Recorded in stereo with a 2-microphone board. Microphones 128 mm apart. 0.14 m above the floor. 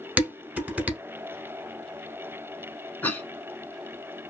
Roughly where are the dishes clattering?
Centre.